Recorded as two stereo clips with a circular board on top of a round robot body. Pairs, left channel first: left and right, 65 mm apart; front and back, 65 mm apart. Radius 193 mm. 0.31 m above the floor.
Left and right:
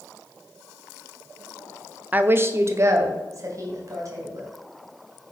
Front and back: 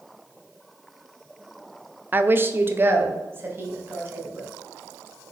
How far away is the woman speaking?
About 1.0 m.